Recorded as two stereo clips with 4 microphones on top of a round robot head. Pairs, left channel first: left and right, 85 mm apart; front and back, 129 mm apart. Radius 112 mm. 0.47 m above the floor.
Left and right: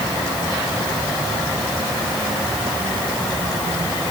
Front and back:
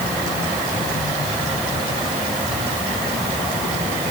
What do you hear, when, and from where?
Only background noise.